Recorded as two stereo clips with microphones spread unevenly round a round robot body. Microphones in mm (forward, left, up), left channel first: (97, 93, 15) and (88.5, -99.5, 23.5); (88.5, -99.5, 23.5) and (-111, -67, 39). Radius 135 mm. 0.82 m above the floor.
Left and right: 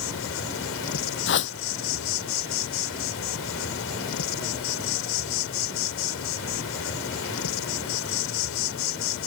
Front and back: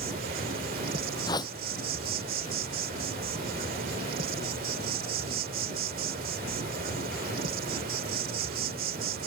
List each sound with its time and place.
0.0 s an insect: 115° left
1.3 s a whoosh: 70° left